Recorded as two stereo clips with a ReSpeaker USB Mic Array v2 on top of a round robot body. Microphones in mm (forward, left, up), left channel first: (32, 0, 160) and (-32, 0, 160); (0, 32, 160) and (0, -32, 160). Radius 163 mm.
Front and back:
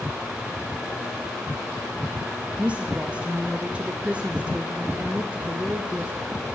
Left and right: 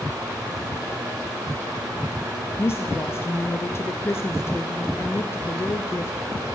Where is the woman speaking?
115° left, 0.6 m.